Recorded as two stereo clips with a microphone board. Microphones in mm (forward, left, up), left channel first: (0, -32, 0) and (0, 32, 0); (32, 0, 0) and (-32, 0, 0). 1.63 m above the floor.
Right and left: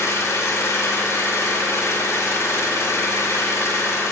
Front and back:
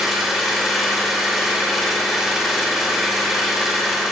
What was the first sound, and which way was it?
An engine running, 95° right.